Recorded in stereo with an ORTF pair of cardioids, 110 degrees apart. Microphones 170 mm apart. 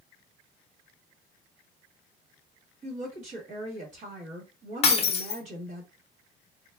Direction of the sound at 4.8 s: 40° left.